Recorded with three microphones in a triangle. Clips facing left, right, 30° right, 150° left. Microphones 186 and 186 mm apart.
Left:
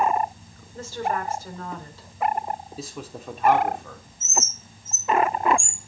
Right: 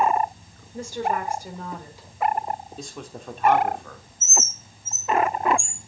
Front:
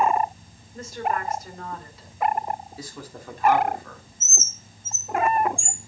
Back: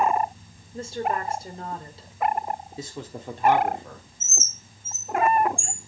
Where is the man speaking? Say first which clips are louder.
Left 1 dB, back 3 dB; 170° left, 1.0 m.